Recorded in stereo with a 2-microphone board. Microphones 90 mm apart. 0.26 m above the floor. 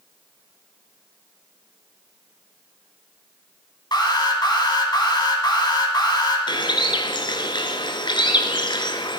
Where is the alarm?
55° left (ahead or behind), 1.9 m.